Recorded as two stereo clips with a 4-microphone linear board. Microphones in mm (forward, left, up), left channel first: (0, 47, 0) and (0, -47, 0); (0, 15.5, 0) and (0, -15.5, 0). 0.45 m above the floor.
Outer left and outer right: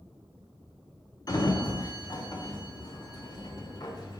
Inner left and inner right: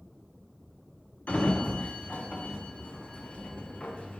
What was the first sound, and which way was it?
A sliding door, 45° left (ahead or behind).